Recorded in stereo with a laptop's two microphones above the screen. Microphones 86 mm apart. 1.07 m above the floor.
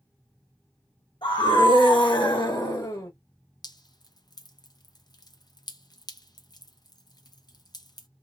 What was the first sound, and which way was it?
A scream, 65° left (ahead or behind).